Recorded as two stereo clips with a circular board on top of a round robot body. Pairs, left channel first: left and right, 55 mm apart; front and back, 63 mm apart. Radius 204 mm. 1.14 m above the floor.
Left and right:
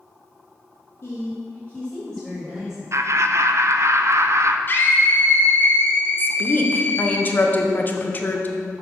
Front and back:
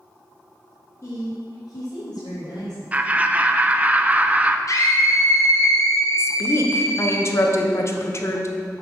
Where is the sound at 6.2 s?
40° left, 1.0 m.